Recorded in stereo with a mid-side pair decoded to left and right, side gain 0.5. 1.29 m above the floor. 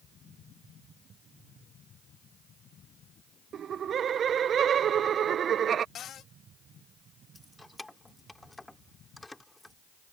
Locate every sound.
3.5 s laughter: 50° right
6.0 s a cupboard door: 60° left
7.3 s keys jangling: 15° left